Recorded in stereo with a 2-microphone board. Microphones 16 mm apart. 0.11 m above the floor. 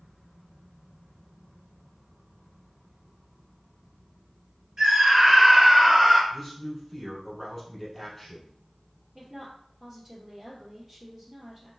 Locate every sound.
4.8 s a scream: 35° right (ahead or behind), 3 m; by 6.2 s 5° right (ahead or behind), 1.8 m
6.3 s a man speaking: 10° left (ahead or behind), 2.5 m
9.2 s a woman speaking: 20° right (ahead or behind), 2.5 m